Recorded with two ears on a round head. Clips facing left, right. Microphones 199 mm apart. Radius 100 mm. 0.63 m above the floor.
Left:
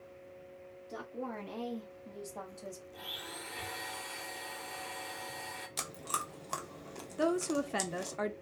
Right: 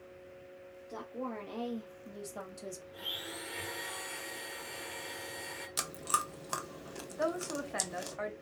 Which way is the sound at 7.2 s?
45° left (ahead or behind).